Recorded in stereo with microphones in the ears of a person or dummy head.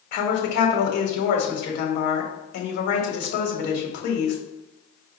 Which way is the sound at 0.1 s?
55° left (ahead or behind).